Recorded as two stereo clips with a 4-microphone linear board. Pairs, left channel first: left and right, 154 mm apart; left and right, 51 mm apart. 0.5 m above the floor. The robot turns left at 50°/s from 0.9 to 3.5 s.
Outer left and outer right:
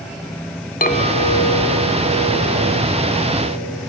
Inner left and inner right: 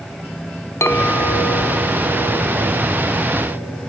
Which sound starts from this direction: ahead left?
A clink, at 0.8 s.